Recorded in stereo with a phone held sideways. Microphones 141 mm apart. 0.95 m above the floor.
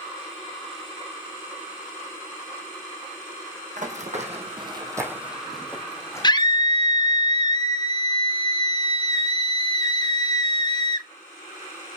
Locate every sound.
3.8 s running footsteps: 60° right (ahead or behind), 2.0 m; by 6.3 s 20° left (ahead or behind), 2.5 m
6.2 s a scream: 30° left (ahead or behind), 0.8 m